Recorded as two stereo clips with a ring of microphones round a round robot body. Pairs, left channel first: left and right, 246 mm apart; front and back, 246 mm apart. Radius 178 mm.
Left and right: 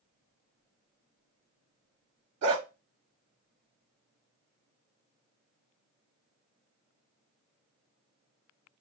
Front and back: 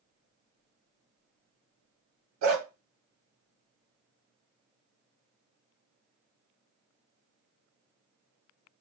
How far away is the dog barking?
About 0.8 m.